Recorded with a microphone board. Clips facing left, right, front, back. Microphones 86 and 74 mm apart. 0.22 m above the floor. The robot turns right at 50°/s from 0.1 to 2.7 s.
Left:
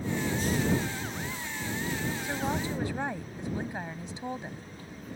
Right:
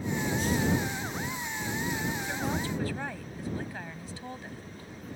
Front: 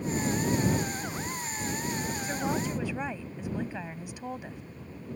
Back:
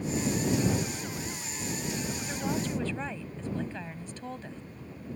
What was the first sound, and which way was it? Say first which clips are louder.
A woman speaking: left 1 dB, front 2 dB; 35° left.